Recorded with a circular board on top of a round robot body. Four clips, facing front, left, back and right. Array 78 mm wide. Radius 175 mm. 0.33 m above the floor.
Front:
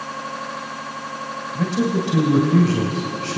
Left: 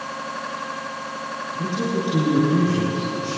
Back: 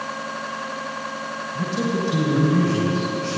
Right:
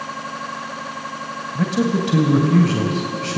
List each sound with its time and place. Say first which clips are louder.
1.6 s a man speaking: right 5 dB, front 3 dB; 70° right, 3 m